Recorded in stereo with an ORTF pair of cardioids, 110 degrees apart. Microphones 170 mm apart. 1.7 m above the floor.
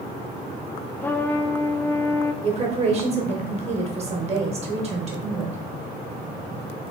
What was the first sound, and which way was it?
A trumpet, 10° left.